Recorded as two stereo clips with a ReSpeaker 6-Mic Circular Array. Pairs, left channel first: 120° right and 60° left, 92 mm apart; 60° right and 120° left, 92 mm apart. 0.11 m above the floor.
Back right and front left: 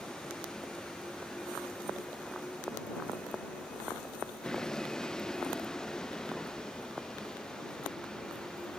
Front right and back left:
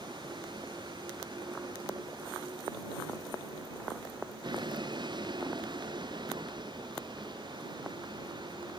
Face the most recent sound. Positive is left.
turn(degrees=155)